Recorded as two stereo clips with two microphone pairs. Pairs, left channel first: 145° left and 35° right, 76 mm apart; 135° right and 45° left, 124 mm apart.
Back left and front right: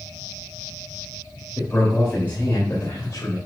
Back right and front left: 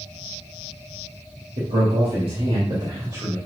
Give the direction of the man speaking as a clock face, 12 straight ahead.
10 o'clock.